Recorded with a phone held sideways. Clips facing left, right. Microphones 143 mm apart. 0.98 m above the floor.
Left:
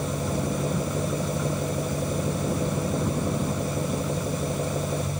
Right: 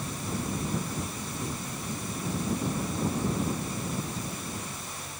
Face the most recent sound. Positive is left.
turn(degrees=75)  # may be behind; listen again after turning